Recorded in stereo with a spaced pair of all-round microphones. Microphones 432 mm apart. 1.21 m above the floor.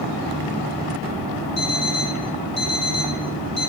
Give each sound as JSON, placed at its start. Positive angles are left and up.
{"t": 1.6, "sound": "an alarm clock", "side_deg": 75, "distance_m": 2.5}